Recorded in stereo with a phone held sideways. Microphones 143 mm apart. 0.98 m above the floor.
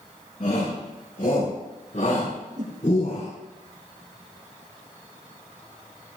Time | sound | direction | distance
0.4 | a shout | 65° left (ahead or behind) | 7.5 m
2.6 | a whoosh | 60° right (ahead or behind) | 3.5 m